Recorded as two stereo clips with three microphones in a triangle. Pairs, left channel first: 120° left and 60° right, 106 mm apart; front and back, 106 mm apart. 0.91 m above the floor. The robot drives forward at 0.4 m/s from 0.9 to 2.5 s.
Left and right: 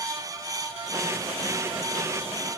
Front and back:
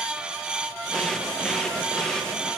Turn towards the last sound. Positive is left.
No sound to turn to.